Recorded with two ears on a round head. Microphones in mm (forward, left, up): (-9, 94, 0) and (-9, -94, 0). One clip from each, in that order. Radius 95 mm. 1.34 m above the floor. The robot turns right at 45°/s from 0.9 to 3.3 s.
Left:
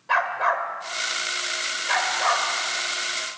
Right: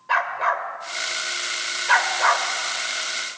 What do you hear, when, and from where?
0.1 s a dog barking: 10° right (ahead or behind), 1.7 m; by 2.5 s 55° right (ahead or behind), 1.7 m